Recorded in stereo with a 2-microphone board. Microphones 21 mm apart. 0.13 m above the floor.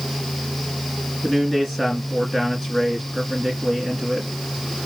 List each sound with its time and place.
1.2 s a man speaking: 10° left (ahead or behind), 1.7 m